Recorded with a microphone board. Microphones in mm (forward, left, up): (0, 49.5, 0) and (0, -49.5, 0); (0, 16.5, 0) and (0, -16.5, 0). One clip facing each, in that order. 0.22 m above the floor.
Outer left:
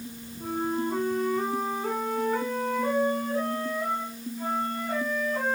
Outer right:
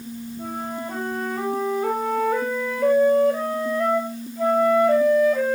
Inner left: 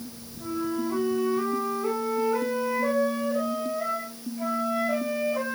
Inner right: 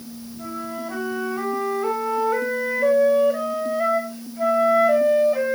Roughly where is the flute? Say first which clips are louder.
Outer left 3 dB, inner left 2 dB; right.